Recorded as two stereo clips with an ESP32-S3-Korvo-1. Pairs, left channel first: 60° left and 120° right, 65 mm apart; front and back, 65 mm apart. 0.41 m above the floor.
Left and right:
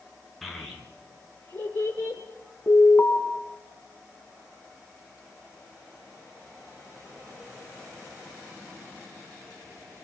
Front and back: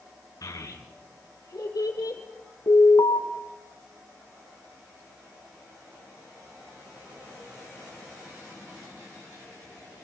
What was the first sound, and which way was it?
A child speaking, 30° right.